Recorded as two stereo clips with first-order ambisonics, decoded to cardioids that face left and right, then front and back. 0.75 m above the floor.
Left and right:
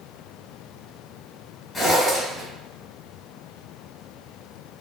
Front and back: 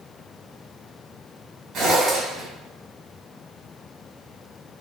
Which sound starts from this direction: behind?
A zipper, at 1.7 s.